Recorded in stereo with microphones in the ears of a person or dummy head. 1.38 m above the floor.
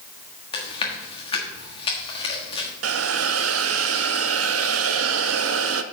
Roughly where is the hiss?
Right.